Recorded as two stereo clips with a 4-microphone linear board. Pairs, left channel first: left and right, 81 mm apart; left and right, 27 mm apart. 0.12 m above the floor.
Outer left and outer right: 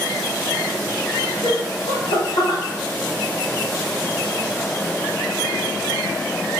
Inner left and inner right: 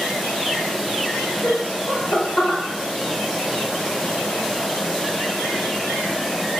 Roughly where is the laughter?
Left.